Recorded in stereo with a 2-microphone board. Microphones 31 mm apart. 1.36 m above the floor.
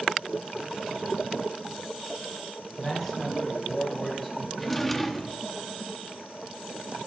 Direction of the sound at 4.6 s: 5° left (ahead or behind).